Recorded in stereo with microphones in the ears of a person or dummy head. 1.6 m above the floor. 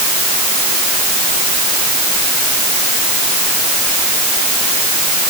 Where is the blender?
No blender in this recording.